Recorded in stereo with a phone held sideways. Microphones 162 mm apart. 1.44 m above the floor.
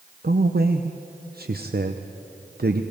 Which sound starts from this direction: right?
A man speaking, at 0.2 s.